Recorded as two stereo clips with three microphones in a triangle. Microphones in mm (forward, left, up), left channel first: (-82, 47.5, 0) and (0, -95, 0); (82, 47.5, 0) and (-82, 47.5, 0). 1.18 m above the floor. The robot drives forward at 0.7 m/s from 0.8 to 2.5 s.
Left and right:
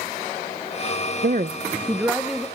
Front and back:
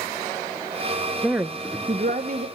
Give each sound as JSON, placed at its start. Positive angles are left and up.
{"t": 1.2, "sound": "a woman speaking", "azimuth_deg": -90, "distance_m": 0.5}